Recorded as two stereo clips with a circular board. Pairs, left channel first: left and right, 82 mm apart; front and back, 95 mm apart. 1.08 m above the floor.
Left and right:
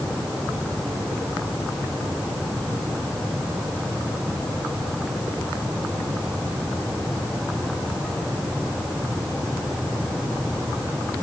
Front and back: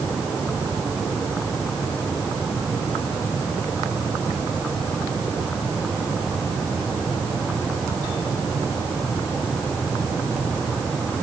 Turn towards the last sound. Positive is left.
No sound to turn to.